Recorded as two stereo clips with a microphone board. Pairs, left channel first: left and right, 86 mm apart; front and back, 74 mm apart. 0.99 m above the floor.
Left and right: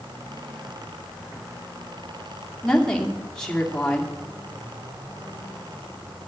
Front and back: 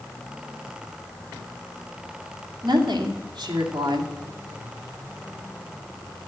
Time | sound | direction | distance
2.6 | a woman speaking | 170° left | 2 m